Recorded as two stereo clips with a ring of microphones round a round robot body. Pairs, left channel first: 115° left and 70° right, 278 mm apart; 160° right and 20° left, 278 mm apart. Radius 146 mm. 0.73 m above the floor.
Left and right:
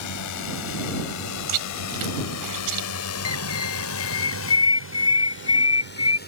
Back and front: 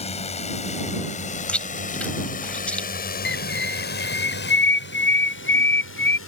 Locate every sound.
0.0 s a drone: 135° left; by 6.3 s 165° left
1.5 s chewing: 70° right
3.2 s a bird: 150° left